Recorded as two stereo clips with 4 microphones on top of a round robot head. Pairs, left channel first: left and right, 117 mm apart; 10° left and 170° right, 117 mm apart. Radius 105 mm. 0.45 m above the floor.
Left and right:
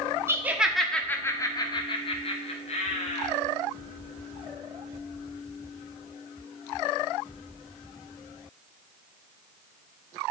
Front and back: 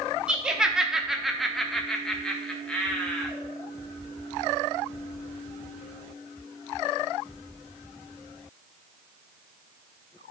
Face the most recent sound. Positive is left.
turn(degrees=90)